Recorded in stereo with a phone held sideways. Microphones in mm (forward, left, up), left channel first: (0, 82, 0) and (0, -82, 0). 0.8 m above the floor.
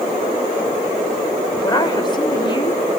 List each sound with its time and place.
1.6 s a woman speaking: 25° left (ahead or behind), 3 m; by 2.8 s 35° left (ahead or behind), 2.5 m